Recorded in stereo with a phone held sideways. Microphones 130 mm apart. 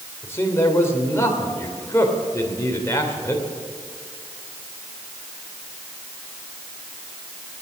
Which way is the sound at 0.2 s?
20° left (ahead or behind).